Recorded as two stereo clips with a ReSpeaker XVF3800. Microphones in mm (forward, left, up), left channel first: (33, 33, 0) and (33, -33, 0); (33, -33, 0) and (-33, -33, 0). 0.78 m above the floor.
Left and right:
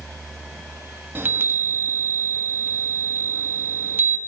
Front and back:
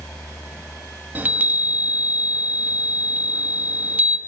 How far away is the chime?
About 1.4 m.